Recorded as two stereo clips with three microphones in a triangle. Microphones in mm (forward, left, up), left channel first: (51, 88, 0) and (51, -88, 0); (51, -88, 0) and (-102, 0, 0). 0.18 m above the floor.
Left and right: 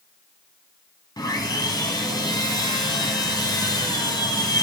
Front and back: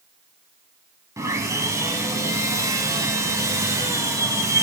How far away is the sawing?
About 1.5 m.